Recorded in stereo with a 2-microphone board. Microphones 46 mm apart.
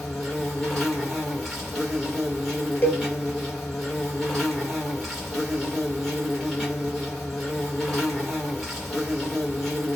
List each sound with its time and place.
0.0 s an insect: centre (ahead or behind), 1.1 m
2.8 s a cowbell: 50° left (ahead or behind), 0.7 m